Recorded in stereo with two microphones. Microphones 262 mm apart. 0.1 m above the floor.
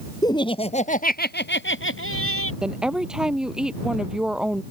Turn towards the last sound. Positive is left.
turn(degrees=-5)  # may be behind; listen again after turning